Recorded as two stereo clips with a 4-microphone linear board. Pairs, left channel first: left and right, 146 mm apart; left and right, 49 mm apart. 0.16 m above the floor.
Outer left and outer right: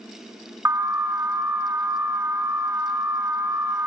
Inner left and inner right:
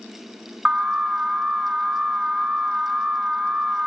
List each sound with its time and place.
0.7 s an alarm: 20° right (ahead or behind), 1.4 m